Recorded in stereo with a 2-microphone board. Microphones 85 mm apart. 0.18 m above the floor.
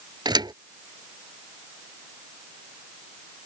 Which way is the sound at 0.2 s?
60° right (ahead or behind).